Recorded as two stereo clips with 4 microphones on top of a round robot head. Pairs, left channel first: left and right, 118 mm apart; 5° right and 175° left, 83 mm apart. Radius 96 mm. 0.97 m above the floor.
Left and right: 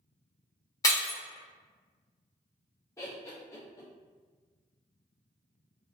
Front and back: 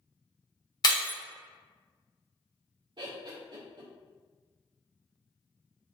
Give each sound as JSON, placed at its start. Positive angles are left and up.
{"t": 0.8, "sound": "breaking glass", "azimuth_deg": 25, "distance_m": 0.8}
{"t": 3.0, "sound": "laughter", "azimuth_deg": 155, "distance_m": 0.7}